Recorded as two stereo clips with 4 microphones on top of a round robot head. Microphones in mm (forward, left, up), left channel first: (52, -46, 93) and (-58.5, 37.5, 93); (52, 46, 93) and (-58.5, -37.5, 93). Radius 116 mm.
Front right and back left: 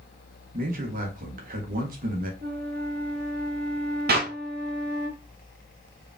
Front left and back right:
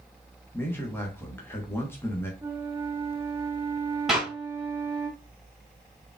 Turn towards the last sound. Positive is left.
turn(degrees=130)